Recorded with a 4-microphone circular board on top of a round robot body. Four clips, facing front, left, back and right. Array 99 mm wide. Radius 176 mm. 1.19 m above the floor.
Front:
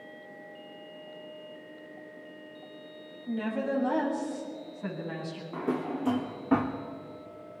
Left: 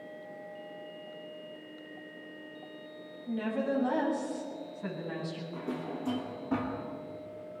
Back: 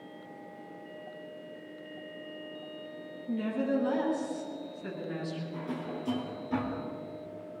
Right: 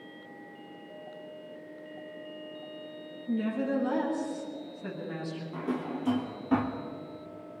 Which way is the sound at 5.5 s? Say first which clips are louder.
Right 5 dB, front 5 dB; 10° right.